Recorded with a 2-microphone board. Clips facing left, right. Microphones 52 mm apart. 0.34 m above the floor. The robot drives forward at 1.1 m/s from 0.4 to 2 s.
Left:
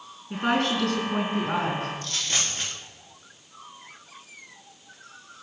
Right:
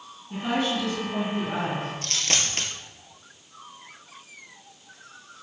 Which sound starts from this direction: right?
A dropped coin, at 2.0 s.